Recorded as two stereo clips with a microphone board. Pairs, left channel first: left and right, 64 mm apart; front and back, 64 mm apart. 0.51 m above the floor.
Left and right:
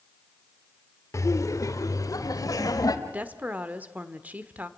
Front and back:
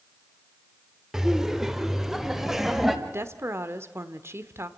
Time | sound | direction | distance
1.1 | laughter | 100° left | 1.4 m
3.1 | a woman speaking | 150° right | 1.1 m